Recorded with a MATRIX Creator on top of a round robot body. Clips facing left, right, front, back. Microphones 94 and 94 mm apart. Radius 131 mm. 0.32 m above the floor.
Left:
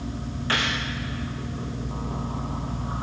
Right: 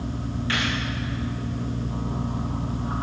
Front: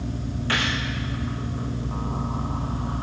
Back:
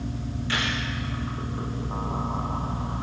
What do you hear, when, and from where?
0.5 s a gunshot: 35° left, 7 m